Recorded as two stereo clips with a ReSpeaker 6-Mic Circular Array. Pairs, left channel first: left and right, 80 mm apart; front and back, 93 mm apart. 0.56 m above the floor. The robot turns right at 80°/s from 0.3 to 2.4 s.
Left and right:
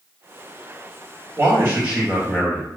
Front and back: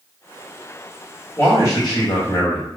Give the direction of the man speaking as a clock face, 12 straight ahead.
2 o'clock.